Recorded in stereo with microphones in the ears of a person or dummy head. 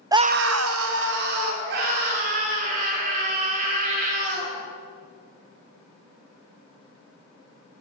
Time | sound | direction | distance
0.1 | a scream | 10° right (ahead or behind) | 0.5 m